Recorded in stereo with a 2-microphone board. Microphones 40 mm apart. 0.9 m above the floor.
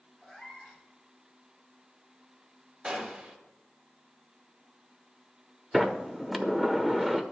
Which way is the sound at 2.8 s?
25° right (ahead or behind).